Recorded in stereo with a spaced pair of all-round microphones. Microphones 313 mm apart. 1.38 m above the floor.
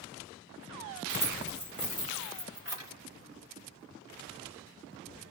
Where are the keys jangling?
60° right (ahead or behind), 1.4 m; by 2.9 s 45° right (ahead or behind), 4 m.